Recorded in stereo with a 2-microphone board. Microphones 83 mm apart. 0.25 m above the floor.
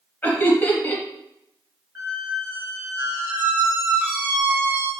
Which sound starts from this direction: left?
Laughter, at 0.2 s.